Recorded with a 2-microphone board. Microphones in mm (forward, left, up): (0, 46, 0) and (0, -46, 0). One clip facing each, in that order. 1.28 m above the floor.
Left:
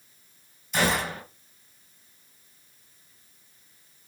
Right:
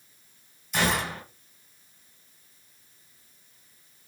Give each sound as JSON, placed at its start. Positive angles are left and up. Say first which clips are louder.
{"t": 0.7, "sound": "a gunshot", "louder": "left 1 dB", "side_deg": 0, "distance_m": 1.4}